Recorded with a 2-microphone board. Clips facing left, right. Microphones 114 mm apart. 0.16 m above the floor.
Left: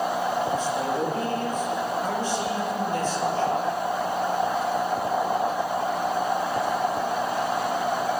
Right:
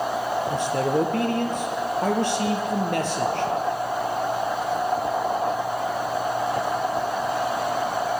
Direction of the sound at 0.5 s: 70° right (ahead or behind).